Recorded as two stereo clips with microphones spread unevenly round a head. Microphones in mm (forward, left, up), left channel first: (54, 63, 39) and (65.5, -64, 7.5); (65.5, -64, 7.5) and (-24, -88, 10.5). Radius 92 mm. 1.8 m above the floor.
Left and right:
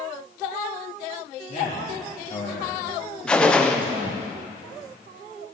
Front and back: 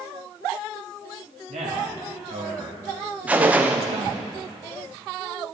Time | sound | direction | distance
1.5 | a man speaking | 150° left | 3.5 m
3.3 | a gunshot | 140° left | 0.6 m